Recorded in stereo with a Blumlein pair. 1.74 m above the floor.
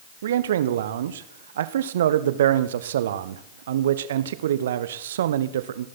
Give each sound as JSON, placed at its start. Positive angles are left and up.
{"t": 0.2, "sound": "a man speaking", "azimuth_deg": -60, "distance_m": 1.2}